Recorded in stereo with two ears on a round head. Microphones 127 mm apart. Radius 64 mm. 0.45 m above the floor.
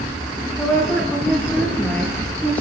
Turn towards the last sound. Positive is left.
turn(degrees=10)  # may be behind; listen again after turning